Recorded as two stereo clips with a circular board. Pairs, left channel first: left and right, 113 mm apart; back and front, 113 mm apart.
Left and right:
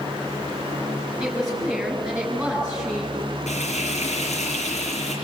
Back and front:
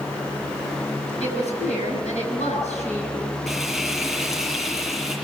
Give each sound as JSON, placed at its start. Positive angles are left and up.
{"t": 1.2, "sound": "a woman speaking", "azimuth_deg": -175, "distance_m": 9.0}
{"t": 3.5, "sound": "frying", "azimuth_deg": 90, "distance_m": 7.5}